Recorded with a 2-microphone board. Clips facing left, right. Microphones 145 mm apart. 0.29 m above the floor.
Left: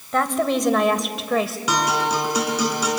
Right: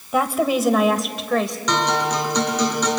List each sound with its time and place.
0.1 s a woman speaking: 10° right (ahead or behind), 1.2 m; by 1.6 s 5° left (ahead or behind), 1.1 m
1.7 s a guitar: 10° left (ahead or behind), 3.5 m